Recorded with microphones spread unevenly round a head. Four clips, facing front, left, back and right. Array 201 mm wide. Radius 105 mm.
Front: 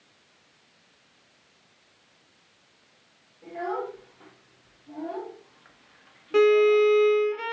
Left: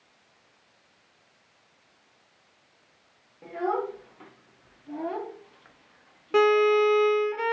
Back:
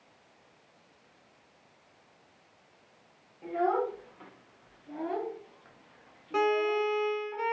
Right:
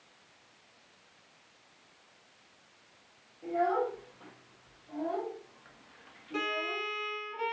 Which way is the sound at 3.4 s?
90° left.